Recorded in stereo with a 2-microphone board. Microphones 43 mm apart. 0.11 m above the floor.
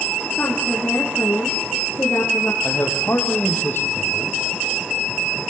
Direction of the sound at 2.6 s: 55° left (ahead or behind).